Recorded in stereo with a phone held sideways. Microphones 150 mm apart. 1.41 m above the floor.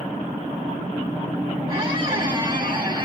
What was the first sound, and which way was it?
A squeak, 35° right (ahead or behind).